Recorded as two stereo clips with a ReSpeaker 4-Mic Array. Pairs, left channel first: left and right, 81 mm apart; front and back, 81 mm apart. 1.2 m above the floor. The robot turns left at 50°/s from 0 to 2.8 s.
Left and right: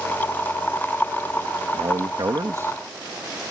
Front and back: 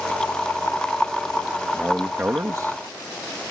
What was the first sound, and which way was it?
A man speaking, 95° right.